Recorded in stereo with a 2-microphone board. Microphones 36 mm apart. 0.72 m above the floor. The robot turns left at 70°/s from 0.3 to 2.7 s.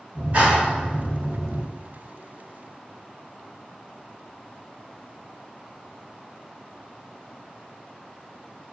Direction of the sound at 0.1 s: 115° right.